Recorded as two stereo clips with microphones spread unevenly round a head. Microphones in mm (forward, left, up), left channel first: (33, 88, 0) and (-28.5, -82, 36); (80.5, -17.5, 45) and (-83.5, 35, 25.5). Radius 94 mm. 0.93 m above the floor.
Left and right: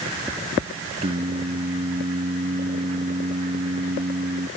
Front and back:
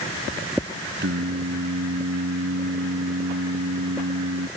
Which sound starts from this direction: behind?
Singing, at 1.0 s.